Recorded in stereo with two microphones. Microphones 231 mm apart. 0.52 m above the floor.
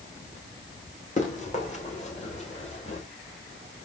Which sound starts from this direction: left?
Running footsteps, at 1.2 s.